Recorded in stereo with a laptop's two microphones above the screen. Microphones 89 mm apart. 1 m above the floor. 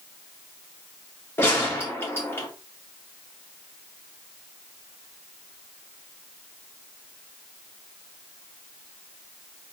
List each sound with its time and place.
1.4 s a gunshot: 25° left (ahead or behind), 2.5 m